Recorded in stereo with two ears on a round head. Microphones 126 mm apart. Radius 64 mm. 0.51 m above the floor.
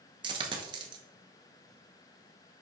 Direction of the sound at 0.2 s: 35° right (ahead or behind).